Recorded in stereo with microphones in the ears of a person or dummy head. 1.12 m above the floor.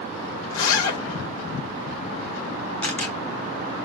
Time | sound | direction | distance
0.5 | a zipper | 50° left (ahead or behind) | 3 m
2.8 | a camera shutter | 5° left (ahead or behind) | 0.9 m